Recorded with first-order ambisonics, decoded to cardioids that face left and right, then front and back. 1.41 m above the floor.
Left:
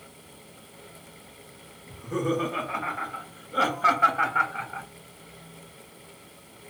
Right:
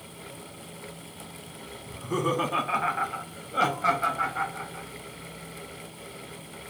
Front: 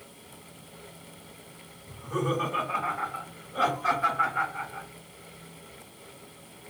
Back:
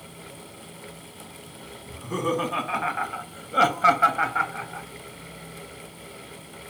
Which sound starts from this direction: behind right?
Laughter, at 1.9 s.